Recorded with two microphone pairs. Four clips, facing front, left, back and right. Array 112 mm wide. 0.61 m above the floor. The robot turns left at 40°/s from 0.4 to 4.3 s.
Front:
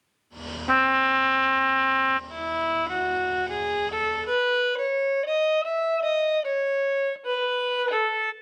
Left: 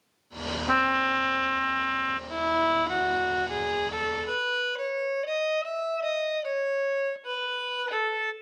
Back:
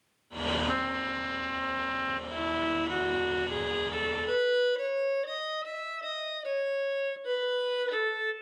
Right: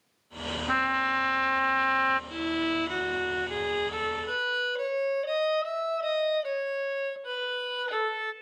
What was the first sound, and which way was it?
A trumpet, 35° left.